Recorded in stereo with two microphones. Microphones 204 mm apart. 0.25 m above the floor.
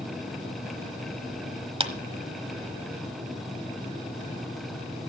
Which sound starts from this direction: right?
A clap, at 1.8 s.